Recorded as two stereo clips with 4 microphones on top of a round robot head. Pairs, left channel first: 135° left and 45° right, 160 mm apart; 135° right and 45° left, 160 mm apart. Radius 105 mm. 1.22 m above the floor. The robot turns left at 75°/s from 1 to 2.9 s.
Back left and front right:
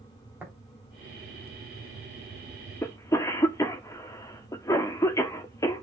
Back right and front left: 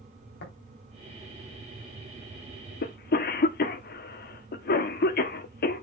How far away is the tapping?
About 3.5 m.